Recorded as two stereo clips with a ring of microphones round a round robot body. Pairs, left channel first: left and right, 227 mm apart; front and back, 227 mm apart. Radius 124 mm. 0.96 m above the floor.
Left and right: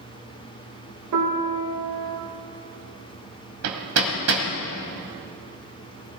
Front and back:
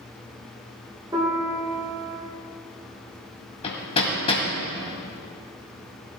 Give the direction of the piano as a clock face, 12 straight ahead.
3 o'clock.